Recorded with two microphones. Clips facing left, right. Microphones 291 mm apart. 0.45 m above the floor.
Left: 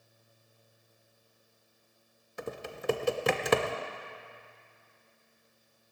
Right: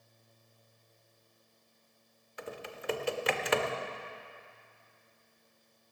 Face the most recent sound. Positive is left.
turn(degrees=50)  # may be behind; listen again after turning